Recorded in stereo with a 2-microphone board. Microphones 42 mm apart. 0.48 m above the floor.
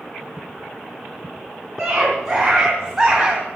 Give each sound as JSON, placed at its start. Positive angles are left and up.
{"t": 1.8, "sound": "a scream", "side_deg": -15, "distance_m": 4.0}